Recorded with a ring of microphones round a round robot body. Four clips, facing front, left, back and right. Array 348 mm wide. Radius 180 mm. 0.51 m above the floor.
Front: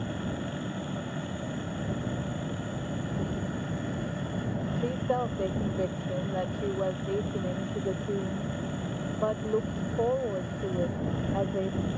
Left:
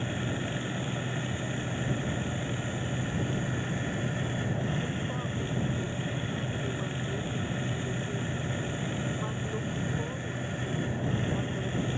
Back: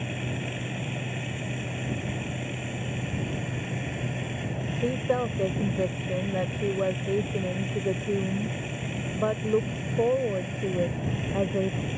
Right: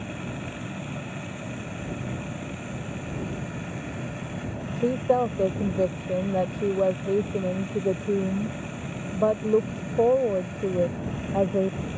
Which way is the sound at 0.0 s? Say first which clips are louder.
Left 1 dB, even; 145° left.